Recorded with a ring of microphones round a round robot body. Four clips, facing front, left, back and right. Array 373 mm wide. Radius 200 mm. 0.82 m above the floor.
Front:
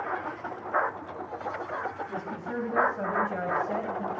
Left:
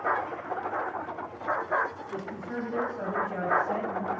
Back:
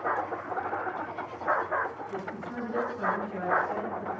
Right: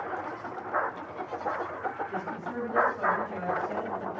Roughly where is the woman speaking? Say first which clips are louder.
Right 1 dB, front 2 dB; ahead.